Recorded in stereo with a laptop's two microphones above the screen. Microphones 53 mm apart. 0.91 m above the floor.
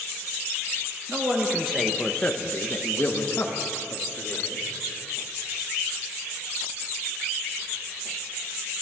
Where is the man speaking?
30° right (ahead or behind), 1.3 m; by 4.7 s 60° left (ahead or behind), 2.5 m.